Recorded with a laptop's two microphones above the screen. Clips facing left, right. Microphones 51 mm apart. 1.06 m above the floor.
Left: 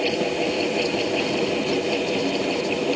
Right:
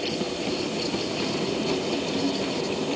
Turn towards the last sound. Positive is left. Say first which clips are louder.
# left 6 dB
turn(degrees=55)  # may be behind; listen again after turning